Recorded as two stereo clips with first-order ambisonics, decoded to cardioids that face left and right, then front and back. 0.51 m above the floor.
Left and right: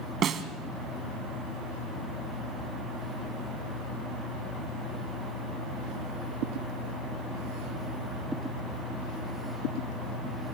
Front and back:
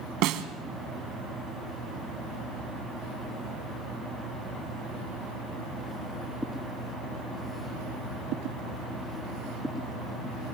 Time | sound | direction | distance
0.2 | a snare drum | 145° right | 1.3 m